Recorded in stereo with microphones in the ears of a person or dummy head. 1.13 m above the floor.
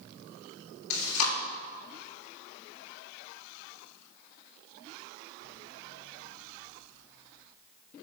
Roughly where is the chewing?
Left.